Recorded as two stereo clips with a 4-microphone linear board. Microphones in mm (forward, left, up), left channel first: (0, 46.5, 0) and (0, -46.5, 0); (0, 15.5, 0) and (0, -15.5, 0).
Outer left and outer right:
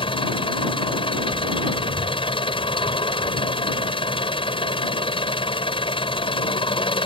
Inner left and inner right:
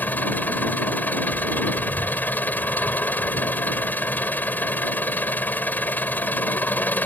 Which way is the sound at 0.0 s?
85° left.